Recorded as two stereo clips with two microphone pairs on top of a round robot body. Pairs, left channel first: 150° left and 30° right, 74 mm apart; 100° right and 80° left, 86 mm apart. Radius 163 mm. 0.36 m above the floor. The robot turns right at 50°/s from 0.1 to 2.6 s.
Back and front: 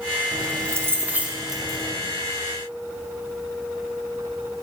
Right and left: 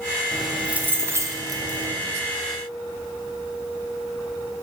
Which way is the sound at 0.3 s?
5° right.